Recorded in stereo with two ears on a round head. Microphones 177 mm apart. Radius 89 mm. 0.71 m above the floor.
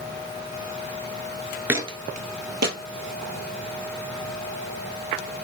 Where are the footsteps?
10° right (ahead or behind), 0.7 m; by 2.8 s 55° right (ahead or behind), 1.5 m.